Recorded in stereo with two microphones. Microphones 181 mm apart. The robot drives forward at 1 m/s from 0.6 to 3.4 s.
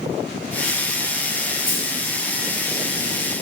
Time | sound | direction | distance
1.7 | a dropped coin | 45° left (ahead or behind) | 3.5 m